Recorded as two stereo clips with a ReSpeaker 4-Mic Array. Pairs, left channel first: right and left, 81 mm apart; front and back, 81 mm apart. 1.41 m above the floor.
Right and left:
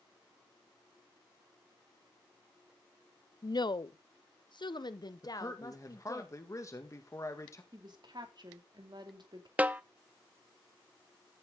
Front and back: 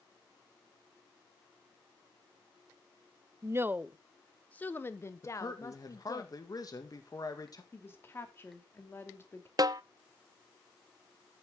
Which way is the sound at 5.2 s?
40° right.